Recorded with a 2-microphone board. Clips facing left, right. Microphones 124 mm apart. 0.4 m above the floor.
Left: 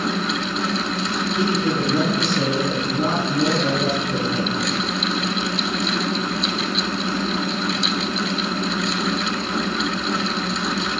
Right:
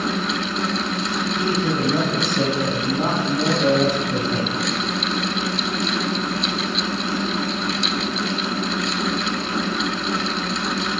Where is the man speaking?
50° right (ahead or behind), 2.5 m.